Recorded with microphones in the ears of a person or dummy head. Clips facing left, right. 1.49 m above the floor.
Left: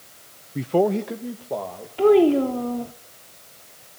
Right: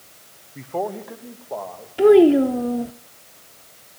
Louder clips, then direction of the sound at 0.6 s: Left 7 dB; 50° left (ahead or behind).